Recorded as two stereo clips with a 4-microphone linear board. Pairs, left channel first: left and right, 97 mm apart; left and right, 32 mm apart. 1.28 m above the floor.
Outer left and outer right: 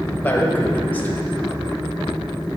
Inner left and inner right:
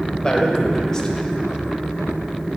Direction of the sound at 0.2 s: 15° left (ahead or behind).